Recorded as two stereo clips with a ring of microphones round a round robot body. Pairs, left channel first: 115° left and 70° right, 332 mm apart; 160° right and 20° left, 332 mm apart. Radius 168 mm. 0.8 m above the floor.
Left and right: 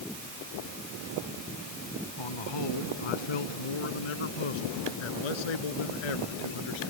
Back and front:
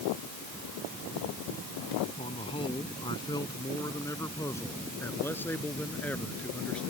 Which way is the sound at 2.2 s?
125° left.